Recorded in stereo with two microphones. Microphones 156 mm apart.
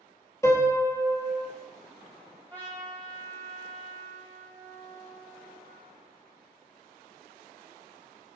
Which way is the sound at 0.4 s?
20° left (ahead or behind).